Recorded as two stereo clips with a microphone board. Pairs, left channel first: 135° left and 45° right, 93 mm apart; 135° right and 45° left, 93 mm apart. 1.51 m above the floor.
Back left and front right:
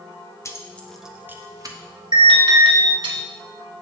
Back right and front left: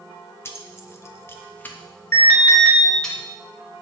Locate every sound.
0.5 s keys jangling: 175° left, 0.8 m; by 3.1 s 50° right, 1.8 m
2.1 s an alarm: 75° right, 2.5 m